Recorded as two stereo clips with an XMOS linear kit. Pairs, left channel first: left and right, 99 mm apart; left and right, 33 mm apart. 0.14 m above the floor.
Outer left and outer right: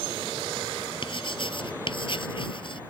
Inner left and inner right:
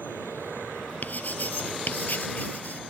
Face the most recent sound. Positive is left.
turn(degrees=55)  # may be behind; listen again after turning